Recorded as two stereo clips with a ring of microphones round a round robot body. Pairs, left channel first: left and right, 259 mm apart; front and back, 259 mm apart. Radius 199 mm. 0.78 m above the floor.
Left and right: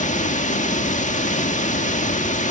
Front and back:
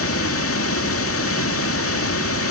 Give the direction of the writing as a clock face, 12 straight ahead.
I don't hear writing.